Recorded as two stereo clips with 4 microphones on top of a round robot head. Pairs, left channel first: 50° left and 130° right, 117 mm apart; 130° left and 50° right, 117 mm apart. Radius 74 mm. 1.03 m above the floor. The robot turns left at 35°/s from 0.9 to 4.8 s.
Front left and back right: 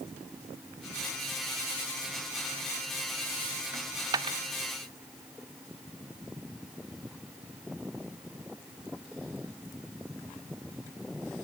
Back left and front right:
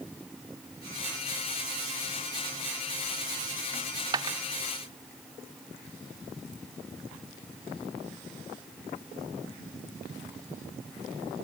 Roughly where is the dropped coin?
Right.